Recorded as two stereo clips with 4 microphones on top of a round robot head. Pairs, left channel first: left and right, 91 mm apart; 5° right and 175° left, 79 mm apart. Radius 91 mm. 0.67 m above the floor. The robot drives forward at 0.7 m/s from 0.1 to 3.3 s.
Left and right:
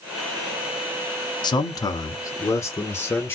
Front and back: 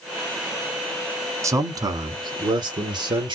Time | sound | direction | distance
1.4 | a man speaking | 125° left | 1.1 m